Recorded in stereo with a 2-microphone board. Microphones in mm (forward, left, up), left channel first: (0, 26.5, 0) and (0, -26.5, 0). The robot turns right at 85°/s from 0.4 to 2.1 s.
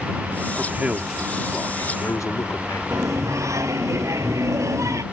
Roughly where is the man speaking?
Ahead right.